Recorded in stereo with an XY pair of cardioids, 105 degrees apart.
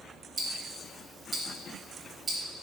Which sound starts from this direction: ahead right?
Ticking, at 0.4 s.